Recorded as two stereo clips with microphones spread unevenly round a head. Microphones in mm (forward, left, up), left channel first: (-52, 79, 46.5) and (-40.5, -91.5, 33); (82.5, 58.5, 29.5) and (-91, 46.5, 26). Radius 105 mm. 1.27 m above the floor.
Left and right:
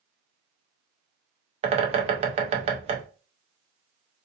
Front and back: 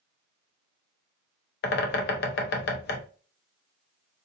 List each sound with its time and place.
1.6 s a bird: 30° right, 0.6 m